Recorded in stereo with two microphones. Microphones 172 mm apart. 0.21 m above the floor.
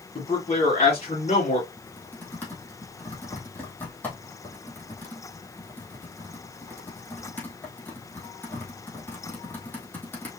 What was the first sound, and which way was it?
A man speaking, 35° left (ahead or behind).